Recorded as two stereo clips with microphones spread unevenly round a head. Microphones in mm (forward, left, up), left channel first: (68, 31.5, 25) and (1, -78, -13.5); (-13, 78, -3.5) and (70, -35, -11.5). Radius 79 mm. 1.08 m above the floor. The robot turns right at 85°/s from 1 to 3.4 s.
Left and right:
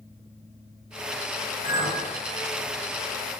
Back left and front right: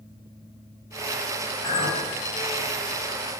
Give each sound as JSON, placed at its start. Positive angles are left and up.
{"t": 1.6, "sound": "a clink", "azimuth_deg": -80, "distance_m": 1.5}